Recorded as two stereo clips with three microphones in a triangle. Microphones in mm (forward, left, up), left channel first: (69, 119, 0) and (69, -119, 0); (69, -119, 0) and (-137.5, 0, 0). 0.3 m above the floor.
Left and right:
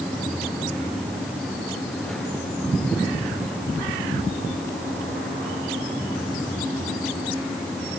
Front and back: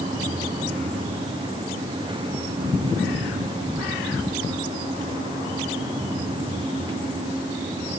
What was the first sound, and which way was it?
Only background noise.